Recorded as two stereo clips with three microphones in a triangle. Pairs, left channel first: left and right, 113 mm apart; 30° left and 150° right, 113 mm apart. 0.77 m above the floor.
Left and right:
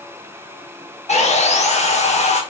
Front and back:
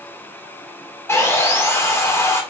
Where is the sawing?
100° left, 0.8 m.